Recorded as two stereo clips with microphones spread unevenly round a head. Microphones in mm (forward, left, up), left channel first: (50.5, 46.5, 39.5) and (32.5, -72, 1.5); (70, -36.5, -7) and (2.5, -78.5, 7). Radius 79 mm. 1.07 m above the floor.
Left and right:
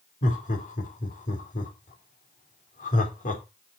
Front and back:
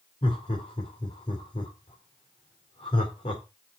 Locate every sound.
0.2 s laughter: 60° left, 3.5 m